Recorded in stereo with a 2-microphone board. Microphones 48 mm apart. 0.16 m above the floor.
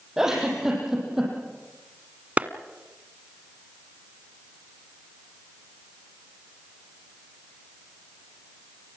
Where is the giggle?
10° right (ahead or behind), 7.5 m.